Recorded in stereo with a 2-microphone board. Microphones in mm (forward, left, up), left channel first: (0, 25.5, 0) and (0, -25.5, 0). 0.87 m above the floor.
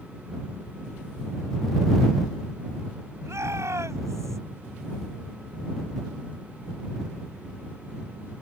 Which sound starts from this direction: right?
A shout, at 3.2 s.